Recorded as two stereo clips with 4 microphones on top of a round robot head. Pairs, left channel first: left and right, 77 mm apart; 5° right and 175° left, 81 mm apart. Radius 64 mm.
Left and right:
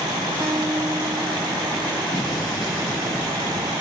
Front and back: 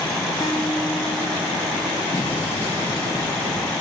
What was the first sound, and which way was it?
A guitar, 55° right.